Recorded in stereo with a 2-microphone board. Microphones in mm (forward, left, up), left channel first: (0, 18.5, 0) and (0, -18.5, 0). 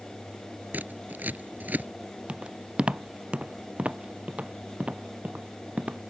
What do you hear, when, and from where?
0.7 s scissors: 50° right (ahead or behind)
2.3 s footsteps: 30° right (ahead or behind); by 6.0 s 40° right (ahead or behind)